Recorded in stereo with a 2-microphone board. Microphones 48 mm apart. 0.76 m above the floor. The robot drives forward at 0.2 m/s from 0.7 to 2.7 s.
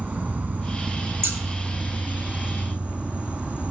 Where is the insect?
30° right (ahead or behind), 0.7 m.